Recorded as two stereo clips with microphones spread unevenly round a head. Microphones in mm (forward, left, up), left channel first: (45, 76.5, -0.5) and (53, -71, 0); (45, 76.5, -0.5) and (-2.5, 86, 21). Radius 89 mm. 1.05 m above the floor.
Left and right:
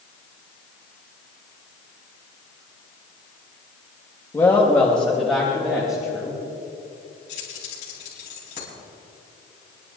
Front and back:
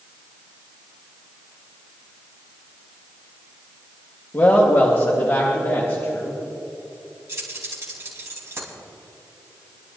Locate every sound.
4.3 s a woman speaking: 20° left, 1.9 m; by 6.4 s straight ahead, 4 m
7.3 s keys jangling: 145° left, 5.5 m